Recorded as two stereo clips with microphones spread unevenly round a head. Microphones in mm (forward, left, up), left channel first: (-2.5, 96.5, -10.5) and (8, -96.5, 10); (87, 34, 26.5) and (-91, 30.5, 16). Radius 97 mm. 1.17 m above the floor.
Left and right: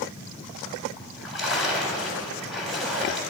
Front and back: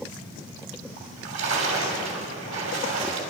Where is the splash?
175° right, 3 m.